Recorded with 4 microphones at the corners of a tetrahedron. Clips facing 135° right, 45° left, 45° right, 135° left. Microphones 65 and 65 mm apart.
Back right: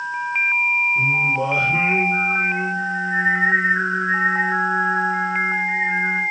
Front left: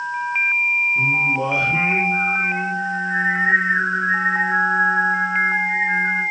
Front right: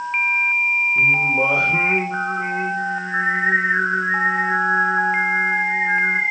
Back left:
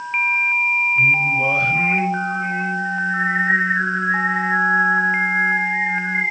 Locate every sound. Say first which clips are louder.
0.9 s singing: even, front right 1 dB; 45° right, 7.5 m